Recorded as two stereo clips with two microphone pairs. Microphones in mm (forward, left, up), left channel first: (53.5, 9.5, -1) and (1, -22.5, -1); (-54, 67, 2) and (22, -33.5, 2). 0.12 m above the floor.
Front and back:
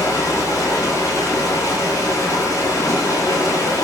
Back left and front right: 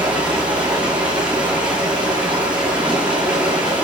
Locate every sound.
0.0 s running water: 30° left, 7 m